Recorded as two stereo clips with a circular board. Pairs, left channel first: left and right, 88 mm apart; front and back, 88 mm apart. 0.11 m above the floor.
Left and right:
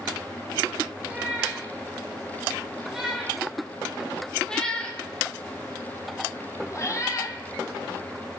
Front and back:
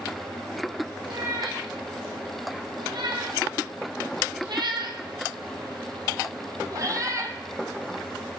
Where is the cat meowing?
165° right, 3.5 m; by 7.4 s 130° left, 2 m.